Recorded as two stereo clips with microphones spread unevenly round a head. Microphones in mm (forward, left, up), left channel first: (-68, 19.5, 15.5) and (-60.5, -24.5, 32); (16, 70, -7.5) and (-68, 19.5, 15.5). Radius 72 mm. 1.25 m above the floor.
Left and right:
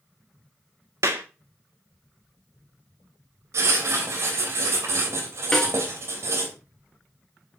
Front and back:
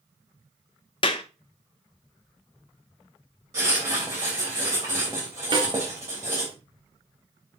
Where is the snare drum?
170° right, 2.5 m.